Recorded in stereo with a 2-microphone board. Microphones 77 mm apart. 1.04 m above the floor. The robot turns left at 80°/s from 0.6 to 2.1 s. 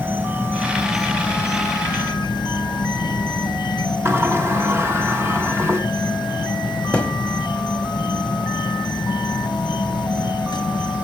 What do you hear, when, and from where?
0.0 s an insect: 150° right, 1.0 m; by 11.0 s 90° left, 1.0 m
4.0 s a sliding door: 35° right (ahead or behind), 1.4 m
6.9 s a thud: 15° left (ahead or behind), 0.9 m